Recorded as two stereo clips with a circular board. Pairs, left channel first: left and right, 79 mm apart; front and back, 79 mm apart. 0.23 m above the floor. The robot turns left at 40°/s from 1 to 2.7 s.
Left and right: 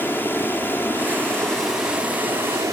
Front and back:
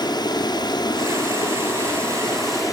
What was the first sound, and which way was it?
Running water, 25° left.